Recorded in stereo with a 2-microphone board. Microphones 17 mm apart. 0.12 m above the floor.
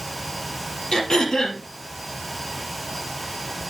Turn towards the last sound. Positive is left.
turn(degrees=50)  # may be behind; listen again after turning